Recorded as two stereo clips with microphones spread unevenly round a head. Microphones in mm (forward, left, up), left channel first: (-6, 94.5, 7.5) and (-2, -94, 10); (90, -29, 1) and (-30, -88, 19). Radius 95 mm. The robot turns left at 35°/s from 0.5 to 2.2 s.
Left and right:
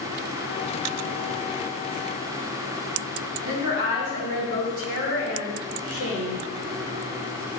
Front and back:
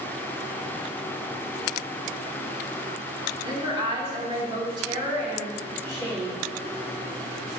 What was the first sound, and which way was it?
A woman speaking, 95° right.